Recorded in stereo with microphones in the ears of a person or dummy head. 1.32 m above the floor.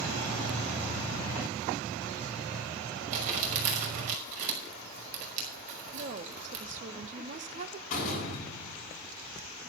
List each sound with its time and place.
3.1 s crumpling: 45° right (ahead or behind), 5.5 m
5.9 s a woman speaking: 45° right (ahead or behind), 1.0 m
7.9 s a door slam: 50° left (ahead or behind), 8 m